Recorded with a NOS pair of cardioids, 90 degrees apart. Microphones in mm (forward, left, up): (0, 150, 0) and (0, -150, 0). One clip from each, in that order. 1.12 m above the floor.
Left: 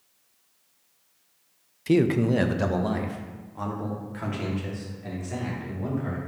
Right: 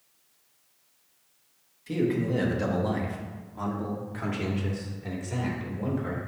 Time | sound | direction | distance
1.9 | a man speaking | 60° left | 0.7 m